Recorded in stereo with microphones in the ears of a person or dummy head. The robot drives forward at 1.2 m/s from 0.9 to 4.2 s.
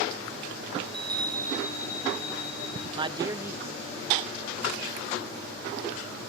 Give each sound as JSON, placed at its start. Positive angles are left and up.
{"t": 0.8, "sound": "a chime", "side_deg": -30, "distance_m": 0.5}
{"t": 3.0, "sound": "a man speaking", "side_deg": -35, "distance_m": 0.6}